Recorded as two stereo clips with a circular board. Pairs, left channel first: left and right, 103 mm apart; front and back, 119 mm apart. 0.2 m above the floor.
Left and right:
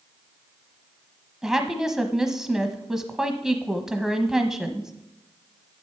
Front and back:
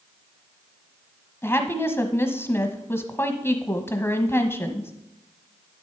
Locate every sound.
1.4 s a woman speaking: 15° right, 1.0 m